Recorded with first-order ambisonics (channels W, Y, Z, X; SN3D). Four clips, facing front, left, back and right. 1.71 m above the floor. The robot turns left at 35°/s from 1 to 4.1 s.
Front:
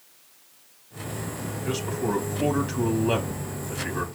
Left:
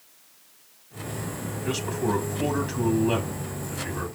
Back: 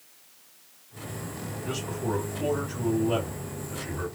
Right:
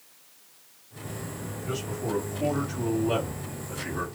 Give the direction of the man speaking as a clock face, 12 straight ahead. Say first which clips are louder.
Left 5 dB, front 4 dB; 10 o'clock.